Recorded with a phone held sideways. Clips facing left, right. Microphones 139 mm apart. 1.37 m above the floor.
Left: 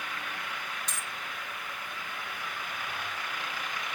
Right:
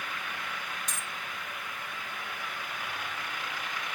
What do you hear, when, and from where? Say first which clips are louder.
0.9 s a dropped coin: even; 50° right (ahead or behind), 2 m